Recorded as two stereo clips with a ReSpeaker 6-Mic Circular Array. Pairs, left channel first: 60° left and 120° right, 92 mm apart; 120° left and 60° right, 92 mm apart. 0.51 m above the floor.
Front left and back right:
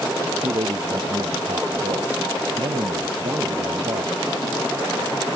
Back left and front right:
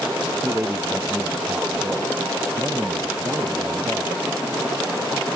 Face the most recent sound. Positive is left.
turn(degrees=-130)